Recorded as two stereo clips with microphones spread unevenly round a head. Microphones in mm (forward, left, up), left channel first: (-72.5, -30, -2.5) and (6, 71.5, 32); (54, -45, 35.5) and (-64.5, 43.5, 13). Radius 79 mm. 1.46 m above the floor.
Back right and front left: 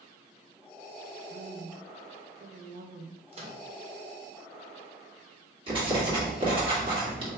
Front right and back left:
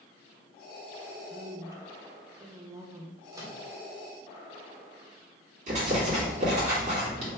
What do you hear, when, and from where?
1.3 s a woman speaking: 75° left, 0.6 m
3.3 s a microwave: 70° left, 0.8 m
5.7 s writing: 95° left, 1.8 m